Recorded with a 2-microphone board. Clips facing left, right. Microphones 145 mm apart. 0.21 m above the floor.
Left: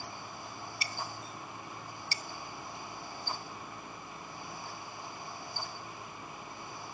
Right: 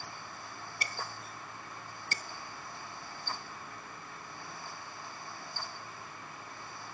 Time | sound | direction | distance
0.8 | breaking glass | 55° right (ahead or behind) | ?